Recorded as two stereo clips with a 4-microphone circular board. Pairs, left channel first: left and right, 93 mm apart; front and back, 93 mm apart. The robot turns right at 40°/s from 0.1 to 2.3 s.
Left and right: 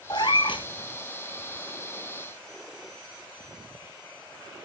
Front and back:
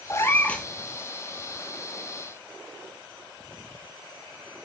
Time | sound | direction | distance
0.1 | a cat meowing | 55° left | 0.7 m